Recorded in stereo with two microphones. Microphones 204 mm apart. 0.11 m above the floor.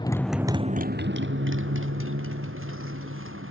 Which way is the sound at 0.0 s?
20° left (ahead or behind).